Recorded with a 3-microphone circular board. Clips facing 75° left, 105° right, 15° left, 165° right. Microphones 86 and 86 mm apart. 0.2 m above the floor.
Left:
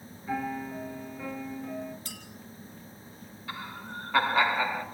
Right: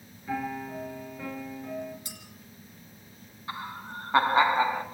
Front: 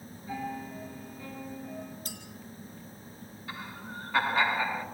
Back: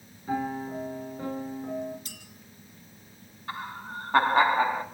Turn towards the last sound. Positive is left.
turn(degrees=-155)